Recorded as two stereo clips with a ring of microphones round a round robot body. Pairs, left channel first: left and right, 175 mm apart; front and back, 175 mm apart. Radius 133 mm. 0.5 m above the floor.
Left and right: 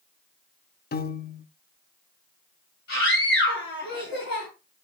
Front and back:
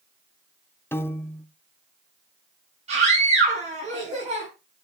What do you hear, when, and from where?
0.9 s a piano: 75° left, 0.8 m
2.9 s a scream: 130° left, 5.5 m